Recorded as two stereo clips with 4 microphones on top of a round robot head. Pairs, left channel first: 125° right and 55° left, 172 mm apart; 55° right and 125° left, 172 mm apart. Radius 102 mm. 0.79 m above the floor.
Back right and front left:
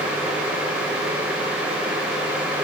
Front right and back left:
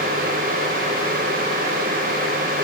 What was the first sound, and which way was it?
Only background noise.